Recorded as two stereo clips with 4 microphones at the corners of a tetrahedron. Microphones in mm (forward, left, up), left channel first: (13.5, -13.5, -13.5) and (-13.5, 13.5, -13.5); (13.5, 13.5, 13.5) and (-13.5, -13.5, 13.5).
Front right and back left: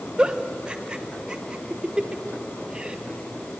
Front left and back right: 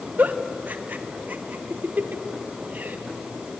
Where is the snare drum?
I don't hear a snare drum.